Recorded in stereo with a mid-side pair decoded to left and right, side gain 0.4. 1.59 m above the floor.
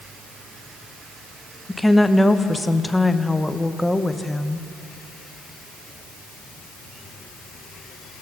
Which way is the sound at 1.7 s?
10° left.